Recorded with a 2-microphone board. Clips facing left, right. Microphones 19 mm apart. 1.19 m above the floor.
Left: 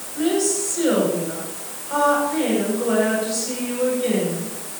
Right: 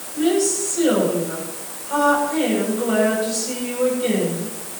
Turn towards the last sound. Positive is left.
turn(degrees=0)  # may be behind; listen again after turning